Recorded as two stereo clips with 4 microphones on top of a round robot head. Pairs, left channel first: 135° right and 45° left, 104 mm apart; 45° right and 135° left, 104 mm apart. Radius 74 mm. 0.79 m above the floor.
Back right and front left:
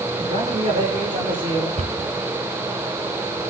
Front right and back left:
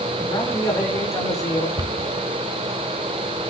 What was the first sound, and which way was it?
A man speaking, 20° left.